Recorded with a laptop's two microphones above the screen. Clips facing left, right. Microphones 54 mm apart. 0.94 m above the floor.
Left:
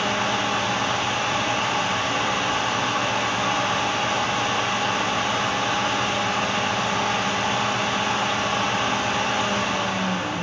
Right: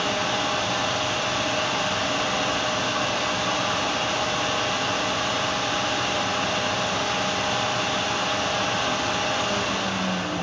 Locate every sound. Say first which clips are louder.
0.0 s a fan: left 2 dB; 35° left (ahead or behind), 0.8 m